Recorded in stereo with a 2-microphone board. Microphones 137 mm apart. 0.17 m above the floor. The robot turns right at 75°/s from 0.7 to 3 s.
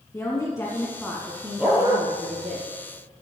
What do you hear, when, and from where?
0.1 s a woman speaking: 145° left, 2 m; by 2.6 s 75° right, 2 m
1.6 s a dog barking: 10° right (ahead or behind), 1.9 m; by 2.0 s 20° left (ahead or behind), 1.9 m